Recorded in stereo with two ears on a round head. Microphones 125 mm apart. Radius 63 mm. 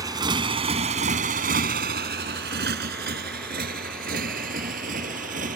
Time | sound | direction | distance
0.0 | a motorcycle | 25° right (ahead or behind) | ?